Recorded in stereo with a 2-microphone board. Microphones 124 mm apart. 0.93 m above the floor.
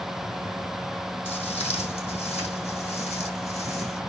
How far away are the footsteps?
About 2.5 m.